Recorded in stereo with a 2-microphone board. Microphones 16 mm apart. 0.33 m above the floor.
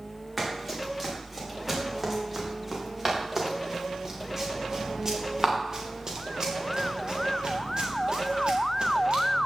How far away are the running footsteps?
About 7 m.